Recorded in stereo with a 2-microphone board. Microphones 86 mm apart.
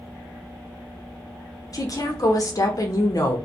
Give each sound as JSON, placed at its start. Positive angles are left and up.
{"t": 1.7, "sound": "a woman speaking", "side_deg": 45, "distance_m": 0.8}